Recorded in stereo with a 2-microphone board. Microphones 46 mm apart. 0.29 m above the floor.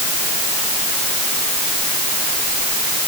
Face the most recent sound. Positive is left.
No sound to turn to.